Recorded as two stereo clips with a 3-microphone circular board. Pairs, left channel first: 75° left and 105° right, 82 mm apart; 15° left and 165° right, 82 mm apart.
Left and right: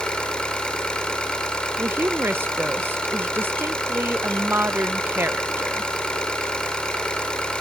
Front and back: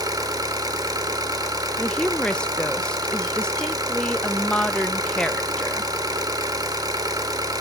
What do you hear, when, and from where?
0.0 s an engine running: 155° left, 2.0 m
1.8 s a woman speaking: 55° right, 0.7 m